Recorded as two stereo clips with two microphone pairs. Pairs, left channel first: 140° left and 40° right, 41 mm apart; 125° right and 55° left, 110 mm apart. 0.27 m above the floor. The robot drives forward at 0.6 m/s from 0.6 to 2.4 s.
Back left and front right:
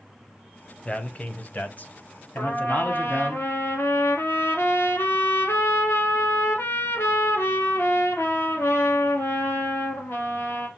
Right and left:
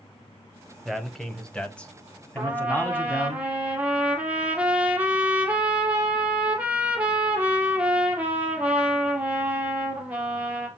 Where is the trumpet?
135° left, 2 m.